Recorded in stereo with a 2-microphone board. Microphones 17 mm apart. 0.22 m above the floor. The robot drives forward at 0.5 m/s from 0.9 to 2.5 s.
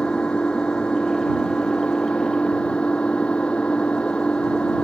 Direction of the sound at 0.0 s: 70° left (ahead or behind).